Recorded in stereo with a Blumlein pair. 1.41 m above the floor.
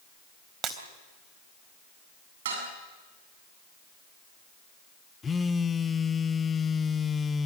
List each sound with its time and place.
0.6 s breaking glass: 25° right, 3.5 m
2.5 s dishes clattering: 55° right, 8 m
5.2 s a phone buzzing: 15° left, 0.8 m